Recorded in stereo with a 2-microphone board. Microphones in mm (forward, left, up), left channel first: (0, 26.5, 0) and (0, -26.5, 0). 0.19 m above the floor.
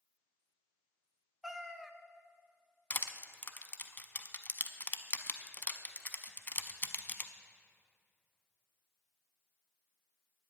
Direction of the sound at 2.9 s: 40° left (ahead or behind).